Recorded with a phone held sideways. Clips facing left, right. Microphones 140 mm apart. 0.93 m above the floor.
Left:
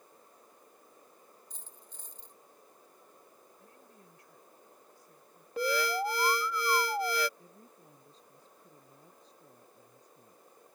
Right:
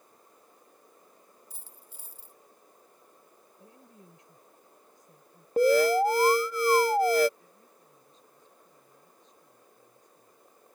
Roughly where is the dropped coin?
Centre.